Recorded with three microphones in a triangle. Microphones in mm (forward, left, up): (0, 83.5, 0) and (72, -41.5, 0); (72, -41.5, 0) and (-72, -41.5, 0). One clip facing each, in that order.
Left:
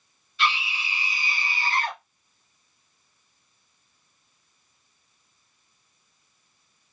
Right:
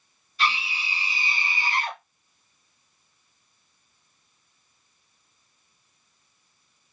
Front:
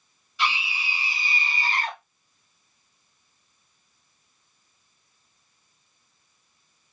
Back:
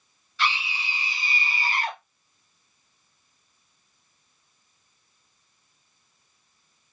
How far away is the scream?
About 1.6 m.